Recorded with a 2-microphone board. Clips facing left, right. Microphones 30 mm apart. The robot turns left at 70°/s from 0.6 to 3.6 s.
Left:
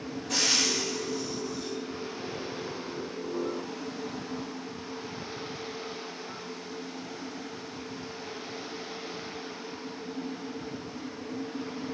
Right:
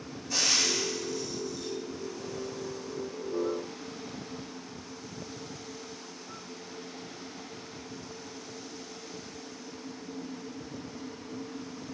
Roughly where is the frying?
Left.